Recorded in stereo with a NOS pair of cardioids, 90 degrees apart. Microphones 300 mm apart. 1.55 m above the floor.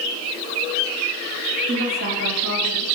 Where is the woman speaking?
35° right, 3.5 m; by 2.9 s 55° right, 3.5 m.